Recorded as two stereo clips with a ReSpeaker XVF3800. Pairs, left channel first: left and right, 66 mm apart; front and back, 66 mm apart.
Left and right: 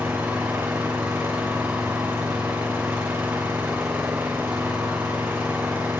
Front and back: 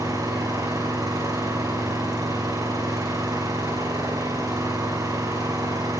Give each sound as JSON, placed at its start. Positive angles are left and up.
{"t": 0.0, "sound": "an engine running", "azimuth_deg": -150, "distance_m": 9.5}